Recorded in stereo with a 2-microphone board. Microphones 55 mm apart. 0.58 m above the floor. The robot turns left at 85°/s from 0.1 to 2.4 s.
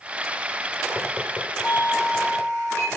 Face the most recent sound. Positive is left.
turn(degrees=-85)